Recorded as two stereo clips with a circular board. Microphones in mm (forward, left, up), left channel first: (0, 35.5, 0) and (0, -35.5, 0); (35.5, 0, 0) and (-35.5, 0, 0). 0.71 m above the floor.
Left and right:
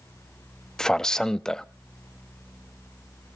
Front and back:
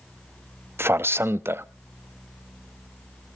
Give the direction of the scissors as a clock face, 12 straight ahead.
I don't hear scissors.